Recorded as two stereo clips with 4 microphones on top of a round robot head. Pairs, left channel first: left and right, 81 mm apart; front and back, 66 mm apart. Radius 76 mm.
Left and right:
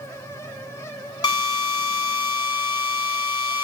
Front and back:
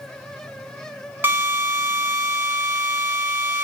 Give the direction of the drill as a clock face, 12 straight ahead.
8 o'clock.